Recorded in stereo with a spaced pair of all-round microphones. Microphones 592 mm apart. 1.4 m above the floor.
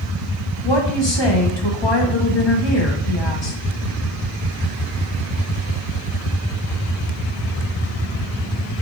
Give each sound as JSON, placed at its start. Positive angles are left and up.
{"t": 0.6, "sound": "a woman speaking", "side_deg": 45, "distance_m": 1.6}